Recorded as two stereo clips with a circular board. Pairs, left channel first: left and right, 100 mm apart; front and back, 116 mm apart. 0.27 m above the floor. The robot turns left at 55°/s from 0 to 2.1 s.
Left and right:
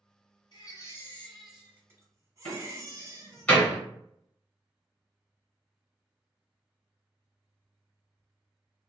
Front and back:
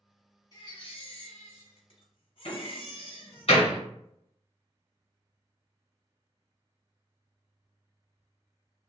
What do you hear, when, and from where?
0.5 s a baby crying: 50° left, 1.1 m; by 3.5 s 35° right, 1.1 m
2.5 s a door slam: 15° left, 1.8 m